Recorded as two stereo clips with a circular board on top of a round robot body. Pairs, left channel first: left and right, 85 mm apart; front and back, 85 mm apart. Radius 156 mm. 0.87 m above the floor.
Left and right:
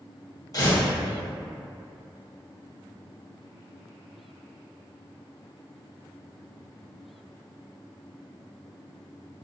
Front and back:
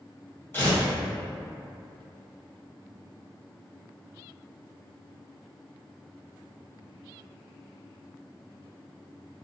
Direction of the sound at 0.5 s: 60° left.